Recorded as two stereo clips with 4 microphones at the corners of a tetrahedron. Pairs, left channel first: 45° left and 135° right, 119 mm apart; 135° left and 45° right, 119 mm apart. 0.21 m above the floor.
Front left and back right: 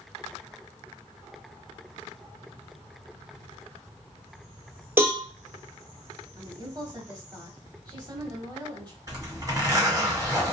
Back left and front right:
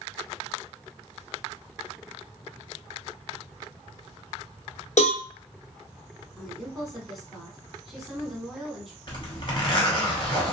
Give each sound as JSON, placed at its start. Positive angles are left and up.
{"t": 5.0, "sound": "a cowbell", "azimuth_deg": 155, "distance_m": 1.0}
{"t": 6.4, "sound": "a woman speaking", "azimuth_deg": -135, "distance_m": 1.1}
{"t": 9.1, "sound": "a zipper", "azimuth_deg": 170, "distance_m": 1.4}